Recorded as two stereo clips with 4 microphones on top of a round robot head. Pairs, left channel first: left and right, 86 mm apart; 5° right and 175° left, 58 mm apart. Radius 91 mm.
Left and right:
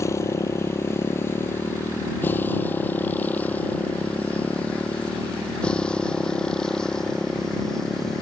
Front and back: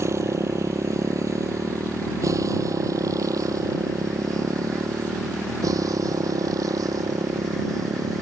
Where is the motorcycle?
145° left; by 8.2 s 175° left.